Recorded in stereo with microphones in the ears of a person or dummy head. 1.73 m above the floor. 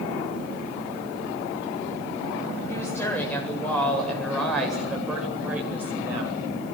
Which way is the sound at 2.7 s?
15° left (ahead or behind).